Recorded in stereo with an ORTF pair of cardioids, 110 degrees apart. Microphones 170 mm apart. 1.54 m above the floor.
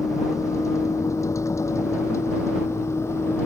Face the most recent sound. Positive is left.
turn(degrees=15)